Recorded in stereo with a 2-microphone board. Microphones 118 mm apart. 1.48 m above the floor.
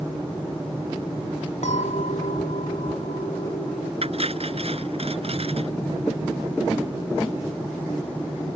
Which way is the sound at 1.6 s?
85° left.